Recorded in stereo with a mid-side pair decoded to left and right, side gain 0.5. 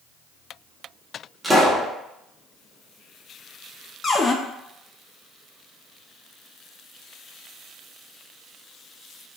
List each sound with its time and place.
1.4 s a pop: 10° right, 1.1 m
4.0 s a cupboard door: 35° left, 0.5 m